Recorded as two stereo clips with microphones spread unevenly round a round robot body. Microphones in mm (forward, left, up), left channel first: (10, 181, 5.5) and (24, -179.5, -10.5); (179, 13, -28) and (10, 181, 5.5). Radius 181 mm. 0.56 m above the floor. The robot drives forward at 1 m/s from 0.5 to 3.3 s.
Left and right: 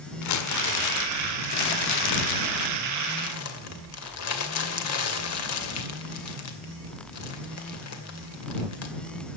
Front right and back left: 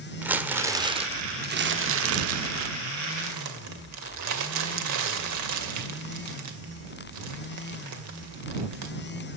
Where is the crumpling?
50° left, 1.8 m; by 8.9 s 145° left, 2 m.